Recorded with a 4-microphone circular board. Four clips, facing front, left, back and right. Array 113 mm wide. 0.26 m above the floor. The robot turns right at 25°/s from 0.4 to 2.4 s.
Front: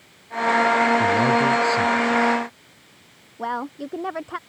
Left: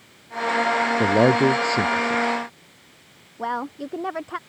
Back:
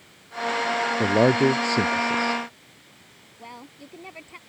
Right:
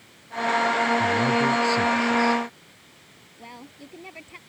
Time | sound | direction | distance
1.0 | a man speaking | 120° left | ?
3.4 | a woman speaking | 45° left | ?